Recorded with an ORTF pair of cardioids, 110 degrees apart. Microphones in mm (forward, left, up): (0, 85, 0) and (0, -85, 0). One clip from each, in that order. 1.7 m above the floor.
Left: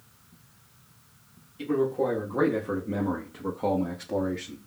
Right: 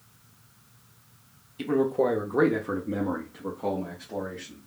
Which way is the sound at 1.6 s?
40° right.